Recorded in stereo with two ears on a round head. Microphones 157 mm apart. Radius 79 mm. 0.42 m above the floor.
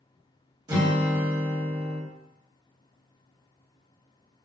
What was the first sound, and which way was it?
A guitar, 25° right (ahead or behind).